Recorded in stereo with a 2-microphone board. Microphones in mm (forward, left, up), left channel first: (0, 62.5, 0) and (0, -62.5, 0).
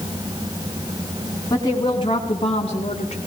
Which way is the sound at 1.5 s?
30° left (ahead or behind).